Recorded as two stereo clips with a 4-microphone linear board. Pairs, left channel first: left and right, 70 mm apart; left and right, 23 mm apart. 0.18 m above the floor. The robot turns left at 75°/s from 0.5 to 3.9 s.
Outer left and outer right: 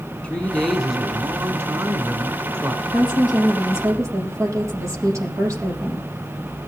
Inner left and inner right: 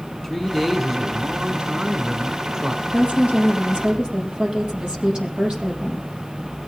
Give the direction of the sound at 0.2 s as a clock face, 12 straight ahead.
11 o'clock.